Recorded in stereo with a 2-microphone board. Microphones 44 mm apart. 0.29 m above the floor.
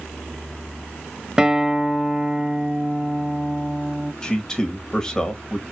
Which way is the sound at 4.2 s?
20° left (ahead or behind).